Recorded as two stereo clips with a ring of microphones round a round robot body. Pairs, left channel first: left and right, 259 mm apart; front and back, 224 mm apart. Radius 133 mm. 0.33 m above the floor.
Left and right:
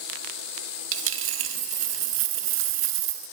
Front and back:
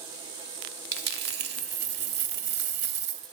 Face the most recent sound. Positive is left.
turn(degrees=-130)